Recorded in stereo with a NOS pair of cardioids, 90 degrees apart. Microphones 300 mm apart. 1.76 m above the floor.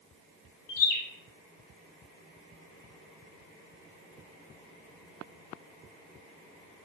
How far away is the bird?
About 1.1 m.